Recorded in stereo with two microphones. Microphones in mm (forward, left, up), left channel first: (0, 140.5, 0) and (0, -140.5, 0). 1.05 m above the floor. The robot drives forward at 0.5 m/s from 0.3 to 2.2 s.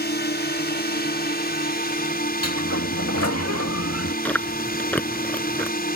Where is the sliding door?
60° left (ahead or behind).